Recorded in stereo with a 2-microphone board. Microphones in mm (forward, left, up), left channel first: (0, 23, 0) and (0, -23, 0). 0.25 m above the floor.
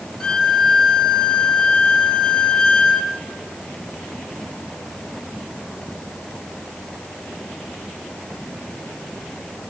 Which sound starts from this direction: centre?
A violin, at 0.2 s.